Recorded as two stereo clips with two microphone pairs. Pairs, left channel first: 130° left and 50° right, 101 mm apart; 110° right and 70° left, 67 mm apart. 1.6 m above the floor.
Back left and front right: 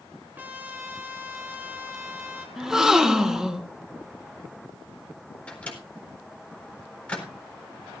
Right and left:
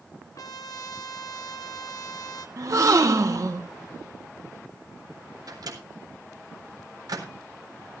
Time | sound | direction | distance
0.3 | a trumpet | 115° right | 1.5 m
2.6 | a gasp | 35° left | 1.5 m
5.5 | a microwave | 55° left | 4 m